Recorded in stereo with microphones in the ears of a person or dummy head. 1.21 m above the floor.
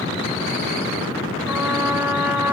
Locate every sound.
1.5 s a trumpet: 10° right (ahead or behind), 0.8 m